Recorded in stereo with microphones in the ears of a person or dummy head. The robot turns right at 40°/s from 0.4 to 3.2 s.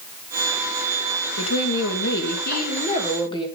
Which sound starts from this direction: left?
A woman speaking, at 1.4 s.